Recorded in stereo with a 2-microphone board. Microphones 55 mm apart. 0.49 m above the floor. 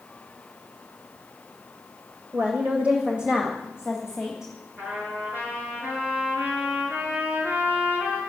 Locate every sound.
2.3 s a woman speaking: 35° right (ahead or behind), 1.8 m; by 4.5 s 5° right (ahead or behind), 2.5 m
4.8 s a trumpet: 35° right (ahead or behind), 8 m